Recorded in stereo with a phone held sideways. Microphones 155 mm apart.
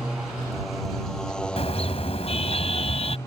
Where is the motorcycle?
5° right (ahead or behind); by 3.3 s 15° left (ahead or behind).